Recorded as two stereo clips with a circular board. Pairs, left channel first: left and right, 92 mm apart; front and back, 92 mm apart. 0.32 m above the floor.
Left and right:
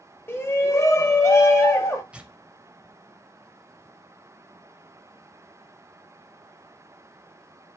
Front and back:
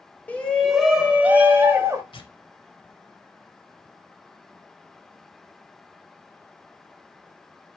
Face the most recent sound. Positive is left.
turn(degrees=-15)